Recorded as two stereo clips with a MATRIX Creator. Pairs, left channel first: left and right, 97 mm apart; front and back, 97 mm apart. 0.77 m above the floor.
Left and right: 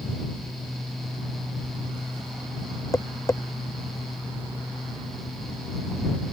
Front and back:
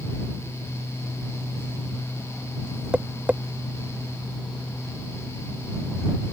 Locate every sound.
2.9 s tapping: 110° left